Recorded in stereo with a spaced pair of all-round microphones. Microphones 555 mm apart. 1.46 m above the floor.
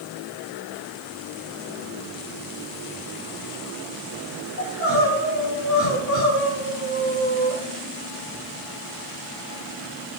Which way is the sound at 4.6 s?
30° left (ahead or behind).